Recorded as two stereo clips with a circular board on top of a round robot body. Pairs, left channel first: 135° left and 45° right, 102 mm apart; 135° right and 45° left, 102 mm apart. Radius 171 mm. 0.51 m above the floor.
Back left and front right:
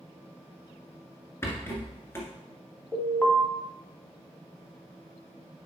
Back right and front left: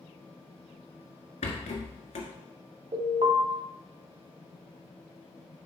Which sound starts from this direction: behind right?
A rattle, at 1.4 s.